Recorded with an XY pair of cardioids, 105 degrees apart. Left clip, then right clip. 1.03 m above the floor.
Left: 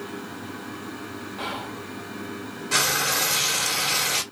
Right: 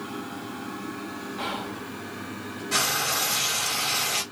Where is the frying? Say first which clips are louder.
Left 3 dB; 40° left, 1.4 m.